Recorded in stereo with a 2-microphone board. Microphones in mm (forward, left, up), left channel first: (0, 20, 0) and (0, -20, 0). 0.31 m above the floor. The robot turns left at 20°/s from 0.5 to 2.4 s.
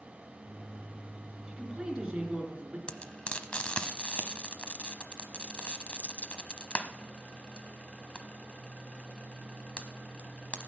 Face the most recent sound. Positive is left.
turn(degrees=30)  # may be behind; listen again after turning